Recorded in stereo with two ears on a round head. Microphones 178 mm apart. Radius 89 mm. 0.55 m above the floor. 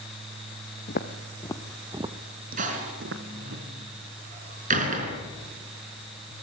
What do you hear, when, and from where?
0.9 s footsteps: 45° left (ahead or behind), 1.7 m; by 3.6 s 70° right (ahead or behind), 2.5 m
2.6 s a door slam: 40° right (ahead or behind), 4.5 m